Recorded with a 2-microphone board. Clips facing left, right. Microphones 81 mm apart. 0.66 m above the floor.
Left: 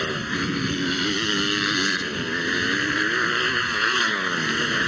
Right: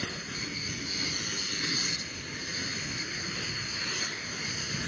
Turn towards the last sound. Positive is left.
turn(degrees=70)  # may be behind; listen again after turning